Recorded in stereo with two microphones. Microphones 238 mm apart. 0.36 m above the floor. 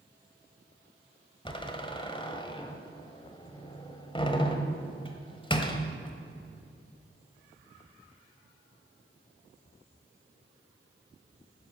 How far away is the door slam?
About 1.4 m.